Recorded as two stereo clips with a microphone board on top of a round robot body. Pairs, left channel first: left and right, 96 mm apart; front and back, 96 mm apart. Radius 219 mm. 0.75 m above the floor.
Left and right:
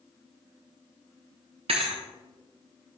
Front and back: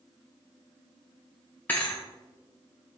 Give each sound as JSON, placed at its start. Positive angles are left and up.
{"t": 1.7, "sound": "a thud", "azimuth_deg": -75, "distance_m": 0.5}